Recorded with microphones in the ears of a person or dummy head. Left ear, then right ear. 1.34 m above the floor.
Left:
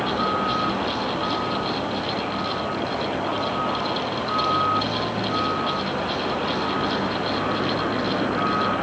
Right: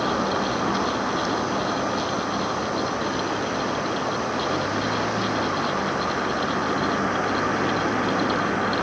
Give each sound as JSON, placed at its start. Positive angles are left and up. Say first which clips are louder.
{"t": 0.0, "sound": "a vehicle", "louder": "left 1 dB", "side_deg": -80}